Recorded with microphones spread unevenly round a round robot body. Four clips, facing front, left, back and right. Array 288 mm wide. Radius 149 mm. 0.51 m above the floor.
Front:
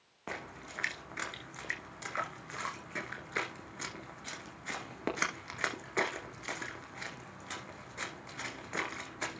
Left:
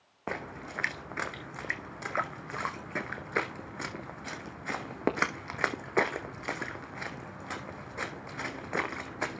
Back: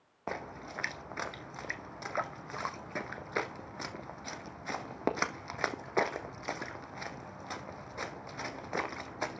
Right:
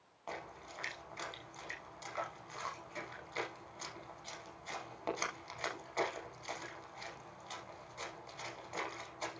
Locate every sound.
0.3 s a splash: 100° left, 1.3 m